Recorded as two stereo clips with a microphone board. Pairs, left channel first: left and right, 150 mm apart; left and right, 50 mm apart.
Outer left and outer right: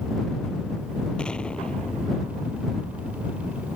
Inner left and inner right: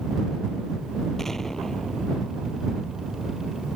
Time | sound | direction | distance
1.2 | an explosion | 5° left (ahead or behind) | ?